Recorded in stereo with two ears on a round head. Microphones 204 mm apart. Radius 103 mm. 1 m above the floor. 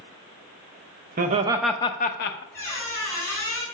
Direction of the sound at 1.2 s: 35° right (ahead or behind).